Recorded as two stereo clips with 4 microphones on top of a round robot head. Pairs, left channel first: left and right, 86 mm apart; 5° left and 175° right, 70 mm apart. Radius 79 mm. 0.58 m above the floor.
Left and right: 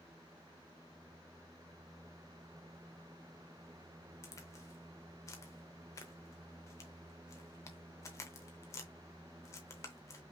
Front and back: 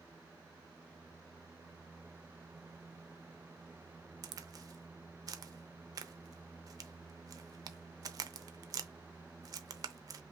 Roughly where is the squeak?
I don't hear a squeak.